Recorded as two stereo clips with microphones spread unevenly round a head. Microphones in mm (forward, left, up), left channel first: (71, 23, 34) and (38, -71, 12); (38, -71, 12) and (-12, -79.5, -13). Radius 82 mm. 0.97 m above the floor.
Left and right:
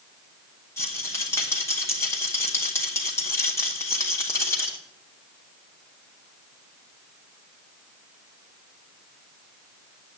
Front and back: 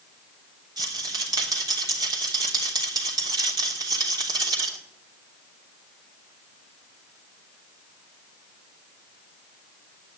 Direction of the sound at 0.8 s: 145° left.